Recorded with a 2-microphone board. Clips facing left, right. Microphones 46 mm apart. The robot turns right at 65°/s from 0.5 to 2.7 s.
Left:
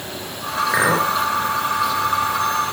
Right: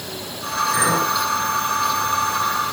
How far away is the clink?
About 3.5 m.